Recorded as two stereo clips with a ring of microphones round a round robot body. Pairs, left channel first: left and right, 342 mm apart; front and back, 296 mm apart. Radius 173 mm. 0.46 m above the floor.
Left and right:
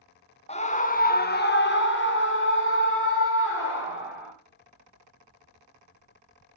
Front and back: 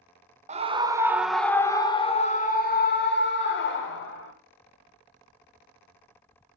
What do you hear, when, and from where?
0.5 s a scream: 140° left, 1.2 m; by 4.3 s 35° left, 2.5 m